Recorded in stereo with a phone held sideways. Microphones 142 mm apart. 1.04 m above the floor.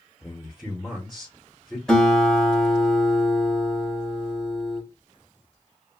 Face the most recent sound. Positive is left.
turn(degrees=5)  # may be behind; listen again after turning